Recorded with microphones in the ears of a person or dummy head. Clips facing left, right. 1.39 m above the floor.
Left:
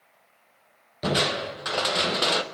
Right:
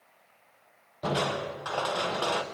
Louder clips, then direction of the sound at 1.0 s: Left 3 dB; 30° left (ahead or behind).